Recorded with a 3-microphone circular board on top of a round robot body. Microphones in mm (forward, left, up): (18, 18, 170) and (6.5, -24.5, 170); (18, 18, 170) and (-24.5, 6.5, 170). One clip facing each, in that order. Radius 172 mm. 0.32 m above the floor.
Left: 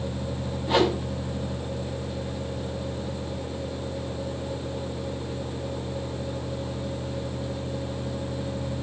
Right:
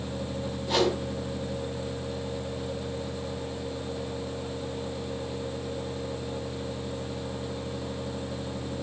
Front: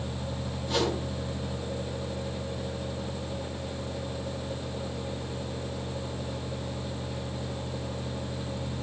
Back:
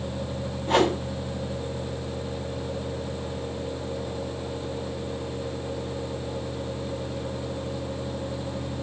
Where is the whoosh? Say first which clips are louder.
Left 3 dB, back 7 dB; 150° left, 3 m.